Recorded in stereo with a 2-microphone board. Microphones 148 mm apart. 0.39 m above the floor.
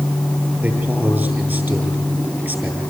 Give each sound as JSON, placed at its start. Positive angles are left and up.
{"t": 0.6, "sound": "a man speaking", "side_deg": -10, "distance_m": 9.5}